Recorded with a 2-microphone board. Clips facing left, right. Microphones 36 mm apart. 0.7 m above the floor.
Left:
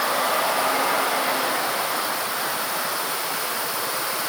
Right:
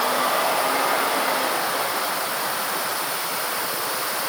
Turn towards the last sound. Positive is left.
No sound to turn to.